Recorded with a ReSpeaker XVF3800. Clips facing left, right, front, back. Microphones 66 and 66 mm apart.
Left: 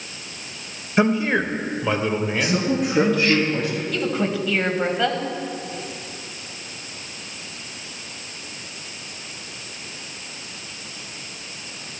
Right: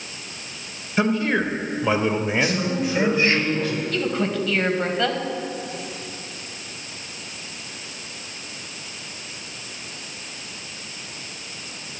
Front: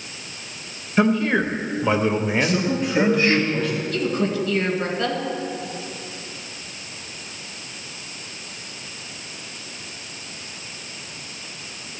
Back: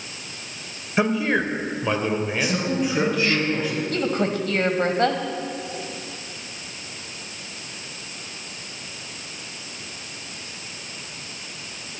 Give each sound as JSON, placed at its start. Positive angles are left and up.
{"t": 1.0, "sound": "a man speaking", "azimuth_deg": 115, "distance_m": 0.9}
{"t": 2.4, "sound": "a man speaking", "azimuth_deg": 100, "distance_m": 3.0}
{"t": 3.9, "sound": "a woman speaking", "azimuth_deg": 170, "distance_m": 1.3}